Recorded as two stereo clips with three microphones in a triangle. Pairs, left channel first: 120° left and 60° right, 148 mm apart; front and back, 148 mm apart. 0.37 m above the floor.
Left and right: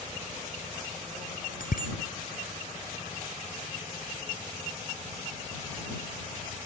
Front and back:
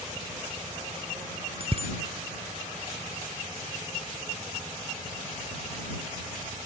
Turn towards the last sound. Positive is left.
turn(degrees=135)